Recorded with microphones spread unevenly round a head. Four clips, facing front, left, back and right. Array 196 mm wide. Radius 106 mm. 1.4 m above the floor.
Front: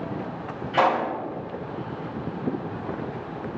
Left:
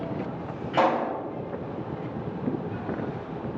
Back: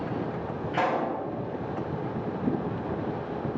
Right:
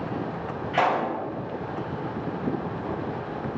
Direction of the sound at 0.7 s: 70° left.